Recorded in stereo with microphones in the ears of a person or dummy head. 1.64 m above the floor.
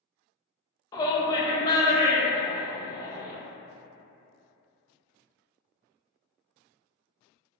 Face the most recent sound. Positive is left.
turn(degrees=25)  # may be behind; listen again after turning